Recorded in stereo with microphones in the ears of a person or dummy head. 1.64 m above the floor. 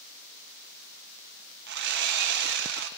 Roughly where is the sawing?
Right.